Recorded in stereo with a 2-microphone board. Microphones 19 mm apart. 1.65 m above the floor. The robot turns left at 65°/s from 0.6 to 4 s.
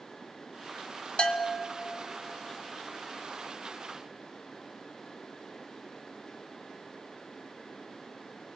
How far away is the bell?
About 1.6 m.